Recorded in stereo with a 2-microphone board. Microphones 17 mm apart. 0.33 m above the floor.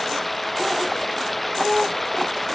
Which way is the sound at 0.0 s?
5° left (ahead or behind).